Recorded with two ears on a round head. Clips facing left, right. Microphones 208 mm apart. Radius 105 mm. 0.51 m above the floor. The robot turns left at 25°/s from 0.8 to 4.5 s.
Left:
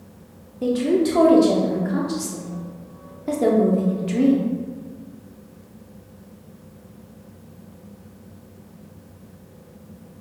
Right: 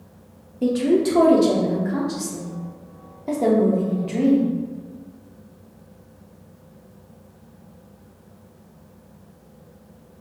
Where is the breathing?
I don't hear breathing.